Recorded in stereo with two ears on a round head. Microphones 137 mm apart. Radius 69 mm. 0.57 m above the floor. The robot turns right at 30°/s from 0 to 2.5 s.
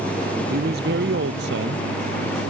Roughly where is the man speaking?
Behind right.